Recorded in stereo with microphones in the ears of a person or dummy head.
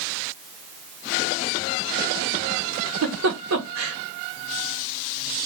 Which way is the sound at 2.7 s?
80° right.